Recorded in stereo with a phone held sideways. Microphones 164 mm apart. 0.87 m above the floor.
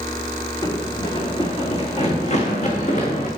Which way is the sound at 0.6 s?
25° left (ahead or behind).